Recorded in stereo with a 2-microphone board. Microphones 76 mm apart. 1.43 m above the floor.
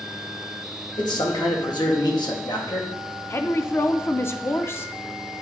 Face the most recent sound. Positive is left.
turn(degrees=35)  # may be behind; listen again after turning